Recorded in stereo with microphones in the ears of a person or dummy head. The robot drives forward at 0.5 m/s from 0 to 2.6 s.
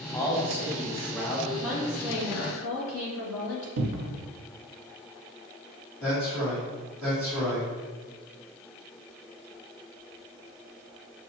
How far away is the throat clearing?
I don't hear throat clearing.